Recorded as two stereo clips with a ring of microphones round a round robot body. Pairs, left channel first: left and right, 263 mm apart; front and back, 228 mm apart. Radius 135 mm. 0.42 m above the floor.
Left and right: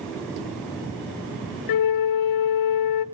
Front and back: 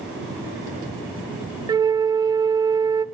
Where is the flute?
105° left, 0.5 m.